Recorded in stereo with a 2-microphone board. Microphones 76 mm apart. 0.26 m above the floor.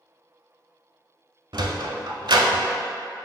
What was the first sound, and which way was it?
A sliding door, 80° right.